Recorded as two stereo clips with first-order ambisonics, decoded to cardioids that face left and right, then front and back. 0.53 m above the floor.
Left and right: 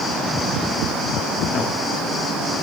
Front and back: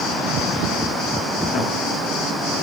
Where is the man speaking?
45° left, 0.9 m.